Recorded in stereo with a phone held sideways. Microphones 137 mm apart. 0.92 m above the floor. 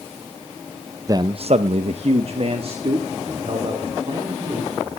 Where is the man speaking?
25° right (ahead or behind), 0.6 m; by 5.0 s 40° right (ahead or behind), 4 m.